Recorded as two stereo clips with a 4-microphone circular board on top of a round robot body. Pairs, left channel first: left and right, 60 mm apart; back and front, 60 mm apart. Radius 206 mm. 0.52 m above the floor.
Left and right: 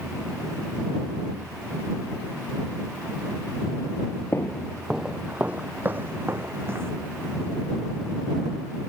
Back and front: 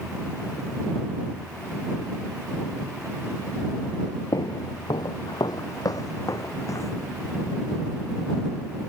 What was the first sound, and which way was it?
Footsteps, 145° left.